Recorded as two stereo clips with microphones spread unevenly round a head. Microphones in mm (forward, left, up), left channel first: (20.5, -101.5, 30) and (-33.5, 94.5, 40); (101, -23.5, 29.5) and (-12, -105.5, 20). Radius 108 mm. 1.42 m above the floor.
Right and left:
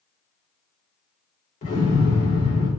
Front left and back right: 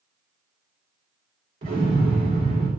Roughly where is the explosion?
Behind right.